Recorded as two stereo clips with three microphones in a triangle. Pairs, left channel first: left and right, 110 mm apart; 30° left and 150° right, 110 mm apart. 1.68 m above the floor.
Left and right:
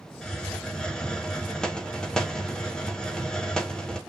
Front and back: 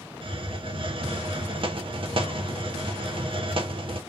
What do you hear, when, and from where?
0.2 s a hiss: 175° left, 0.5 m